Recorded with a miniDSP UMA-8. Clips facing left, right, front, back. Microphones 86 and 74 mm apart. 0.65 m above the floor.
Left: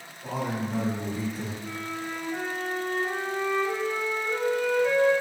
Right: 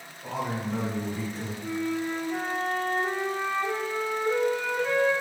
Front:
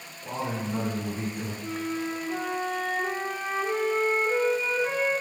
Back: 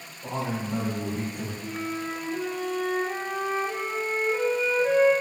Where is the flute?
20° right, 0.8 m.